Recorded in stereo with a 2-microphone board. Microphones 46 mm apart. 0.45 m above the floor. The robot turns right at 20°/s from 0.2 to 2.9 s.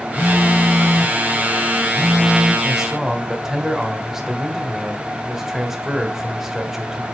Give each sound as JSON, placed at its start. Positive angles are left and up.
{"t": 0.2, "sound": "a phone buzzing", "side_deg": 20, "distance_m": 0.6}
{"t": 2.6, "sound": "a man speaking", "side_deg": -5, "distance_m": 1.4}